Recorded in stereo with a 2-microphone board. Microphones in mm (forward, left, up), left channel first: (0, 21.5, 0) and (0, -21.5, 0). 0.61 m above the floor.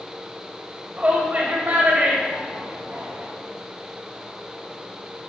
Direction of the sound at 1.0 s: 40° right (ahead or behind).